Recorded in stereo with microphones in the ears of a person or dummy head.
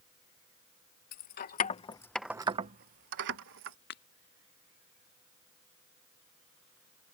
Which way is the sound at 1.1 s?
55° left (ahead or behind).